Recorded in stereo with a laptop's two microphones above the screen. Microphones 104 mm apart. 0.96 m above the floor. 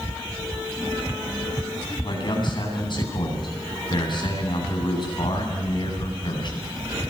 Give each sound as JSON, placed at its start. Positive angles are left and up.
{"t": 2.0, "sound": "a man speaking", "side_deg": 45, "distance_m": 9.5}